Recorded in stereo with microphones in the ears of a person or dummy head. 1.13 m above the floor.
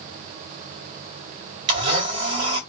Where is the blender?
30° right (ahead or behind), 1.4 m.